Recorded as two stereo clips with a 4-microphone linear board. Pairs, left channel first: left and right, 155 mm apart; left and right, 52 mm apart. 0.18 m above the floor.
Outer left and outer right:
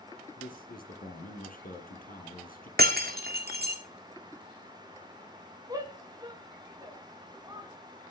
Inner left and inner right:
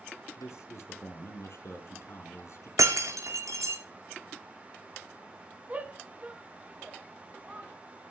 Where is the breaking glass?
80° right, 2.5 m.